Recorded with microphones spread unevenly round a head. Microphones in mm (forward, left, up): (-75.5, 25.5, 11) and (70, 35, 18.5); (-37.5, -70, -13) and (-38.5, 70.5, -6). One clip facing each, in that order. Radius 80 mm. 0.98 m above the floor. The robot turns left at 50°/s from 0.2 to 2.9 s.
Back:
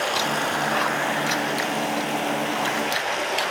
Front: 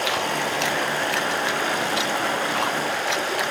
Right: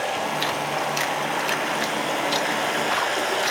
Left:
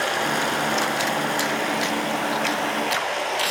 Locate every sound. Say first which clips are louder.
0.0 s running water: even, left 1 dB; 95° left, 6 m; by 3.5 s 40° right, 6 m